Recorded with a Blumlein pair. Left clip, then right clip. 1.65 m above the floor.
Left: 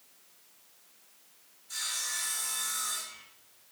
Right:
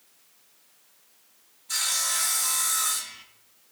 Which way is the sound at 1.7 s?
30° right.